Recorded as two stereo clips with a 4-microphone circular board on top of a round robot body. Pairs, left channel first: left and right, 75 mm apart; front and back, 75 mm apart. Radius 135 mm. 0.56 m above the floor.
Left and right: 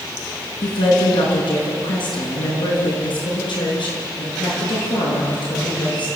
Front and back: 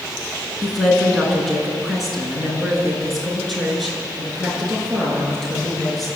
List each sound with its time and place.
0.6 s a woman speaking: 90° left, 6.5 m; by 6.1 s 85° left, 10 m